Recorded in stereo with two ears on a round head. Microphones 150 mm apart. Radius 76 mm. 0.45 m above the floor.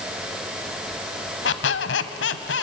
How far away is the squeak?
About 1.4 m.